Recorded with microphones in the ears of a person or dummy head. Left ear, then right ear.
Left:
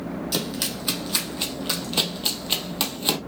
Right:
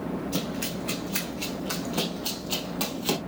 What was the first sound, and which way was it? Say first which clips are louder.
Running footsteps: left 4 dB; 60° left (ahead or behind).